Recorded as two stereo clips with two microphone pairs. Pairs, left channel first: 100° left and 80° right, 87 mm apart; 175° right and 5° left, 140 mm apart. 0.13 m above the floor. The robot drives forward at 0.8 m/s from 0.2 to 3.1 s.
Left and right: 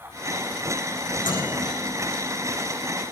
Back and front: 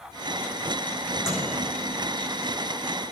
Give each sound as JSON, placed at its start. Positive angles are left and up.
{"t": 1.2, "sound": "a microwave", "azimuth_deg": 90, "distance_m": 8.5}